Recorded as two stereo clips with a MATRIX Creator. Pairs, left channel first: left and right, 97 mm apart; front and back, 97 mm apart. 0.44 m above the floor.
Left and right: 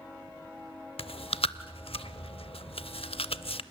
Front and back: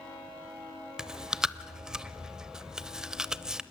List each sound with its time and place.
1.0 s chewing: 95° left, 0.6 m